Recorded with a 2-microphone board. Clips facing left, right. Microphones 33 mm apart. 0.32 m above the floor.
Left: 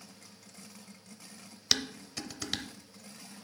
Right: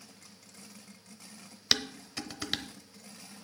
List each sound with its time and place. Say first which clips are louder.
1.7 s dishes clattering: right 1 dB; 15° right (ahead or behind), 0.8 m